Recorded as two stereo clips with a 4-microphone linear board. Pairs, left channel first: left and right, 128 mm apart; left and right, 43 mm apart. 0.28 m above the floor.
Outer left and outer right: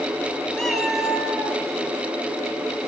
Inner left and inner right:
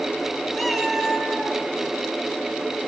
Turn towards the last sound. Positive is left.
turn(degrees=-10)  # may be behind; listen again after turning